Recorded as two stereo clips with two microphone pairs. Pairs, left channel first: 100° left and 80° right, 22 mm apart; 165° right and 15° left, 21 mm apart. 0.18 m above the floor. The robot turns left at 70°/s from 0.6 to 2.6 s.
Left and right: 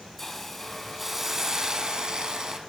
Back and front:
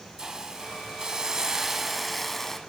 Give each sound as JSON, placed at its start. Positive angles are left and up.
{"t": 0.2, "sound": "a hiss", "azimuth_deg": 30, "distance_m": 0.7}